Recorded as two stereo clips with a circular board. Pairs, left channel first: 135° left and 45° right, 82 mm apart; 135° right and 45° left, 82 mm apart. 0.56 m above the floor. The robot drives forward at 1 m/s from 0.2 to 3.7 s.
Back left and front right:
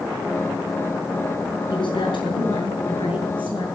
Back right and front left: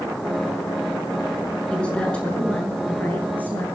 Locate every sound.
1.7 s a woman speaking: 145° left, 5.5 m; by 3.6 s 155° left, 7.5 m